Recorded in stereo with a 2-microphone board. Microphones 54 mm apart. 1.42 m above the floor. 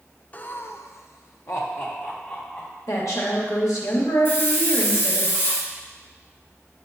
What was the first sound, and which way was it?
Laughter, 30° left (ahead or behind).